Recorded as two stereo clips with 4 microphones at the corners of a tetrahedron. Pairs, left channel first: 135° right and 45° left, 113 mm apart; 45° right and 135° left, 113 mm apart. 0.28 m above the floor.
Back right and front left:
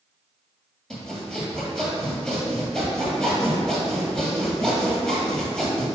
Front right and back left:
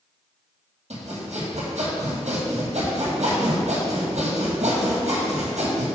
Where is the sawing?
140° left, 1.9 m.